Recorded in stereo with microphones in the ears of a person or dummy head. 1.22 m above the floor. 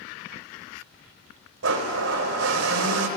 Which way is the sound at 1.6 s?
75° right (ahead or behind).